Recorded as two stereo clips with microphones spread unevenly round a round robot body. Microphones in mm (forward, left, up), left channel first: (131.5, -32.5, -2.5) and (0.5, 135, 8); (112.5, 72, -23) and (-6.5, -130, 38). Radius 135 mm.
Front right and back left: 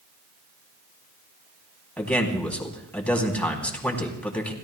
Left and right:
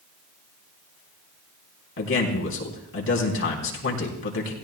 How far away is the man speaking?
About 3.5 m.